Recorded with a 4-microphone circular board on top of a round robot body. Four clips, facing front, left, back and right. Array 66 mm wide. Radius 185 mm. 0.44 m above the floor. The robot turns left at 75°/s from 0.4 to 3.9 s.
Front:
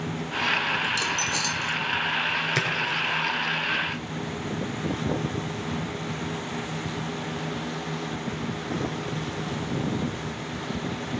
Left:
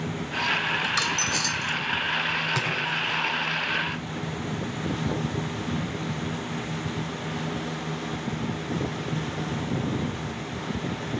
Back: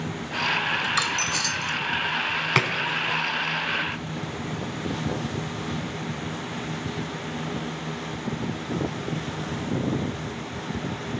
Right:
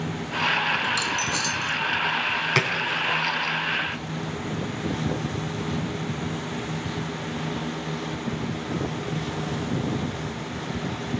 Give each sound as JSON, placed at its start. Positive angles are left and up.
{"t": 0.8, "sound": "a dropped coin", "azimuth_deg": 180, "distance_m": 3.0}
{"t": 2.5, "sound": "a splash", "azimuth_deg": -155, "distance_m": 4.5}